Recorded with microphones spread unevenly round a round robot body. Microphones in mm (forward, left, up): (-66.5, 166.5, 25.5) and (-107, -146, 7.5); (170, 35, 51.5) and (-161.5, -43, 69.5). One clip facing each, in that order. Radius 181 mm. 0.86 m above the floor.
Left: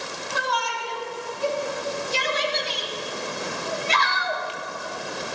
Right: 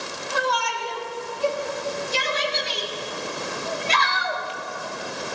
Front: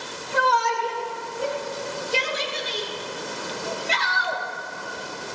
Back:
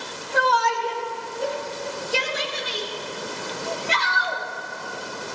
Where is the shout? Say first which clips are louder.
Right 5 dB, back 1 dB; 65° right, 4 m; by 4.5 s 90° right, 1.7 m.